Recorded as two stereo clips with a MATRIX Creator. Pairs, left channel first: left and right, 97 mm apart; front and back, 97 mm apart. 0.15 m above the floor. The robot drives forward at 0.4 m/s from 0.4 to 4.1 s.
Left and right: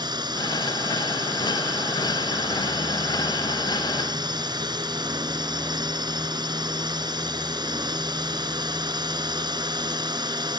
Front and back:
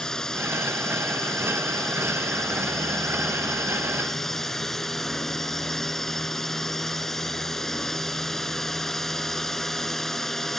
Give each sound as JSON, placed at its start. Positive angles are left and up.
{"t": 0.0, "sound": "a drone", "azimuth_deg": -80}